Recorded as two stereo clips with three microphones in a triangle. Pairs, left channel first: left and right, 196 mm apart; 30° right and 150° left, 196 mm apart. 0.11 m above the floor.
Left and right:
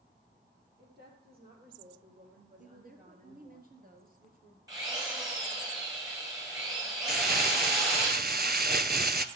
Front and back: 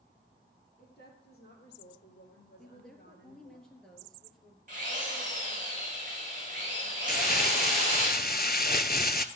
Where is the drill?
160° right, 5 m.